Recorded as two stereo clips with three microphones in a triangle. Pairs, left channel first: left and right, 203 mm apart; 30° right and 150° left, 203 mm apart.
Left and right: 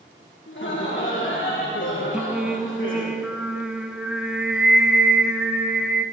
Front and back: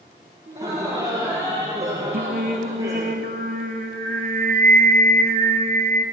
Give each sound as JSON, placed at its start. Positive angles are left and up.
{"t": 0.5, "sound": "laughter", "azimuth_deg": 100, "distance_m": 3.0}
{"t": 2.1, "sound": "singing", "azimuth_deg": -175, "distance_m": 0.7}